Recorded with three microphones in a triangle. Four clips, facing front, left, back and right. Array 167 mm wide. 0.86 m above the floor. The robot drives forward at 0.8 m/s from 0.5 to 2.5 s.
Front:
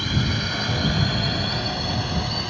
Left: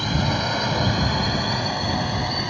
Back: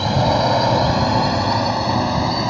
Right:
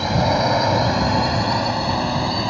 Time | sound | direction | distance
0.0 | a drone | 150° right | ?